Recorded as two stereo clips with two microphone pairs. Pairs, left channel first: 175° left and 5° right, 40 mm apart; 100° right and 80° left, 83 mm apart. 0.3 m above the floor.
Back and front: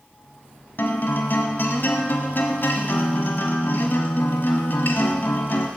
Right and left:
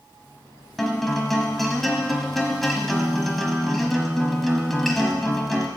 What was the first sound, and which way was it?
A guitar, 175° left.